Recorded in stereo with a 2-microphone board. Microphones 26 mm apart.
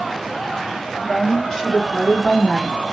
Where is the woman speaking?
25° left (ahead or behind), 1.8 m; by 2.8 s 5° right (ahead or behind), 1.4 m.